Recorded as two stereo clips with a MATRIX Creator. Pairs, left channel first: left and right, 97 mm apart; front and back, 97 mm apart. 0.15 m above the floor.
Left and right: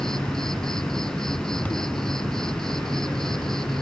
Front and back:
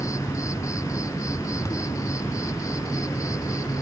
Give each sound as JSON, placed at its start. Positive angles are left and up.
{"t": 0.0, "sound": "an insect", "azimuth_deg": 10}